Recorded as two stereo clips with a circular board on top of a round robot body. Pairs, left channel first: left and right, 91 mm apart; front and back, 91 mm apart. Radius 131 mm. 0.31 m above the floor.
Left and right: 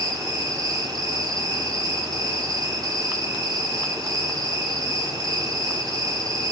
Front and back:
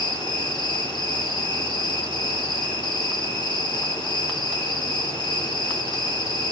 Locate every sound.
0.0 s an insect: 40° right, 1.7 m